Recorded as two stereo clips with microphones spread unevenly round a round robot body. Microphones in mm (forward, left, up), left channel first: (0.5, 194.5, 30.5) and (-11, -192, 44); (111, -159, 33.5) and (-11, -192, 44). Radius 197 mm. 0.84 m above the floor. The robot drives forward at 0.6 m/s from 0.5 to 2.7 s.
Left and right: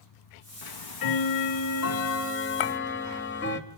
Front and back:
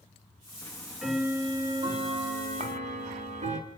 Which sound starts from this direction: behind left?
A clink, at 2.6 s.